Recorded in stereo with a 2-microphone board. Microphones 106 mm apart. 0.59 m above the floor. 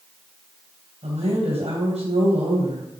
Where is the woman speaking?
75° right (ahead or behind), 3.5 m.